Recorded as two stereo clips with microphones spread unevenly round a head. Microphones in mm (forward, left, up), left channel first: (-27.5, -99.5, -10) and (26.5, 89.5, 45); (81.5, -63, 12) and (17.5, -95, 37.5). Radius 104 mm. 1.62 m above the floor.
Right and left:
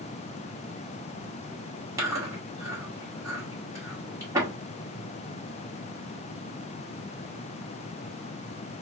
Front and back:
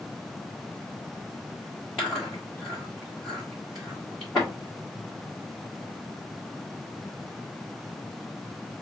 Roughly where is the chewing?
Behind left.